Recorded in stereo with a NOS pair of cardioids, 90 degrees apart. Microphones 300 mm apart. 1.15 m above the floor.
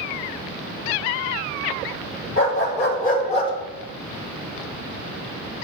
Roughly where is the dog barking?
Ahead left.